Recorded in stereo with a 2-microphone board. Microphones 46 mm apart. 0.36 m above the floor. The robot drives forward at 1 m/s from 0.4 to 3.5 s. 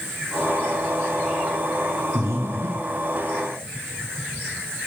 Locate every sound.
2.1 s breathing: 70° right (ahead or behind), 8 m; by 3.0 s 75° right (ahead or behind), 8 m